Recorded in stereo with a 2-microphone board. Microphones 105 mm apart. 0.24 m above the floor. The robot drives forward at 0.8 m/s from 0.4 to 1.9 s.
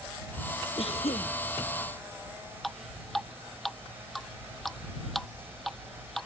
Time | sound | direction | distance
0.8 | a cough | 80° left | ?
2.6 | dripping | centre (ahead or behind) | ?